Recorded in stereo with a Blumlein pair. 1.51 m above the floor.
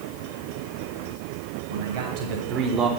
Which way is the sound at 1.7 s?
60° right.